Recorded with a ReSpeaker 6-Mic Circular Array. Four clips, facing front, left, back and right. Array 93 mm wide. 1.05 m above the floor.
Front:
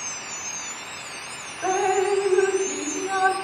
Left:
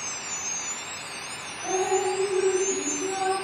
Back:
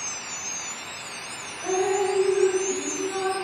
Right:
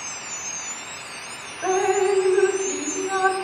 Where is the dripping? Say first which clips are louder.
Right 5 dB, front 2 dB; 60° right, 2 m.